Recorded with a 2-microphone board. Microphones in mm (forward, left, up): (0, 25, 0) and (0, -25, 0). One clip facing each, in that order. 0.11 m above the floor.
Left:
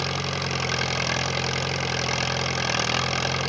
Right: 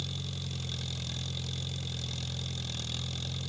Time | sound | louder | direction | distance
0.0 | an engine running | left 13 dB | 80° left | ?